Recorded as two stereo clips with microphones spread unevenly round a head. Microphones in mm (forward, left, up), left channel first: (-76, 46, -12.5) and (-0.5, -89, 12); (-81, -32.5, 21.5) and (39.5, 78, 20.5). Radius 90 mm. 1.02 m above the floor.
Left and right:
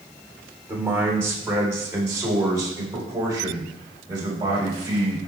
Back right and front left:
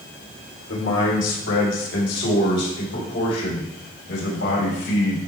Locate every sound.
0.7 s a man speaking: 140° right, 3 m; by 5.2 s 125° right, 5.5 m